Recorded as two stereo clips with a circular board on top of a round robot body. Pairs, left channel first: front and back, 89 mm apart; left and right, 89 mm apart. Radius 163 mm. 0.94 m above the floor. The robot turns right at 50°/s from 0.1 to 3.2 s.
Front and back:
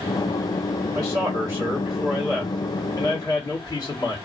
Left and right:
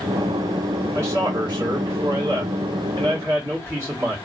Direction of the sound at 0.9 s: 150° right.